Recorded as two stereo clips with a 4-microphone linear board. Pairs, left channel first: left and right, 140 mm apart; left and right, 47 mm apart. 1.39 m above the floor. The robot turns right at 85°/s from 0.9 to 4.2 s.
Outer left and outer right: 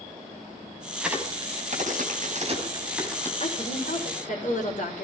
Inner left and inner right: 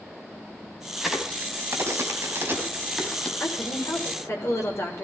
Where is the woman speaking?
45° left, 5.5 m; by 5.0 s 115° left, 5.5 m.